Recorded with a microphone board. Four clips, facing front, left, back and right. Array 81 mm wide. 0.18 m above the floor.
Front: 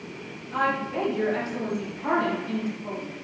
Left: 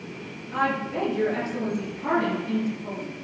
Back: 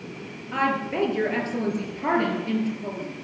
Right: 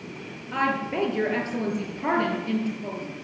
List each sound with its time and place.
0.5 s a woman speaking: 135° right, 4 m